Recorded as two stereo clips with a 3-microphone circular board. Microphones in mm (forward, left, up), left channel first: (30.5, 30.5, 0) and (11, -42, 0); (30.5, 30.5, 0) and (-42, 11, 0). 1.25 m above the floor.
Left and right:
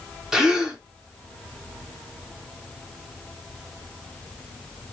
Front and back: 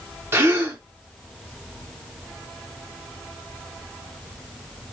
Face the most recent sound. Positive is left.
turn(degrees=180)